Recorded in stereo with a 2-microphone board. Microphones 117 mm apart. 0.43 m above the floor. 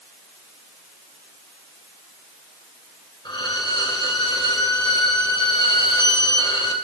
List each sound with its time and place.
3.2 s a violin: 40° left (ahead or behind), 2 m